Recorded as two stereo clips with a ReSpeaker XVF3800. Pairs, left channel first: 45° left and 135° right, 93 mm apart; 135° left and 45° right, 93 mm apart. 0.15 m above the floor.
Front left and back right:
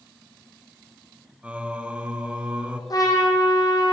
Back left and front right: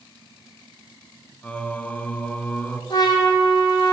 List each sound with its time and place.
1.4 s singing: 175° left, 0.5 m
2.9 s a trumpet: 90° left, 2.0 m